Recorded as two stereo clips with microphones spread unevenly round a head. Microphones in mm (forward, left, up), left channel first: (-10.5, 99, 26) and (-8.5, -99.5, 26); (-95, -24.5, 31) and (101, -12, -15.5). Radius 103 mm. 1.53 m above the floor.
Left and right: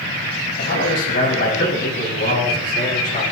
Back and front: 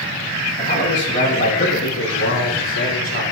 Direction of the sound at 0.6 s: 130° left.